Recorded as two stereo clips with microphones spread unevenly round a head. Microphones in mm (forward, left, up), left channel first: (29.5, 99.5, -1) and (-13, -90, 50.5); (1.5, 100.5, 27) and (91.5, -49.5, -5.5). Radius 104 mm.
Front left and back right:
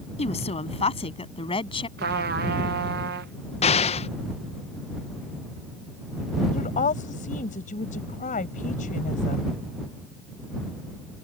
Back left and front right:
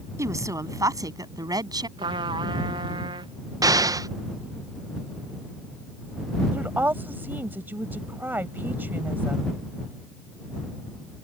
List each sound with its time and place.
0.2 s a woman speaking: 15° left; by 1.9 s 10° left
2.0 s a trumpet: 130° right
3.6 s an explosion: 15° left
6.5 s a woman speaking: 20° left